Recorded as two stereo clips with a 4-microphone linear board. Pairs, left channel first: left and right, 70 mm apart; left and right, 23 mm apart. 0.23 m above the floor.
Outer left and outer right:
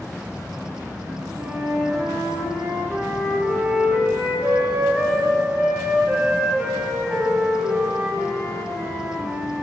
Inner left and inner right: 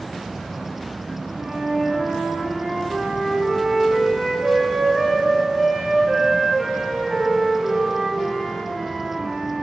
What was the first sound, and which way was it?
A flute, 30° right (ahead or behind).